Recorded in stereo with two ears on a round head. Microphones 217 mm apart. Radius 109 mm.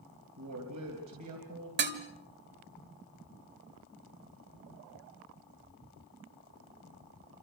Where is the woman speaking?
75° right (ahead or behind), 3.5 m.